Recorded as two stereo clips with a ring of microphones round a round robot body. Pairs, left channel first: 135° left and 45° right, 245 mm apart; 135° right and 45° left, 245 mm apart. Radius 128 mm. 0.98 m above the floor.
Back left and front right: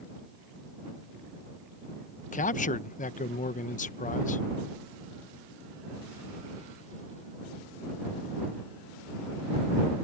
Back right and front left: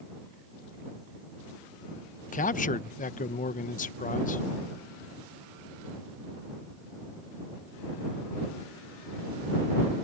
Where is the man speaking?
Straight behind.